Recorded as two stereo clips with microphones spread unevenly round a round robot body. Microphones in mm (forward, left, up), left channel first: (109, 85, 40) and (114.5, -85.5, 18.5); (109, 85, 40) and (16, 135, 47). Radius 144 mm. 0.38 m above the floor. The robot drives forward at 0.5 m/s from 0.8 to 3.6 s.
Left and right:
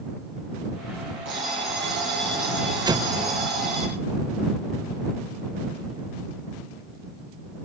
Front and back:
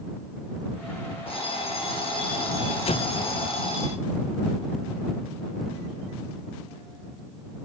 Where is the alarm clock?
125° right, 5.5 m; by 3.9 s 130° right, 6.5 m.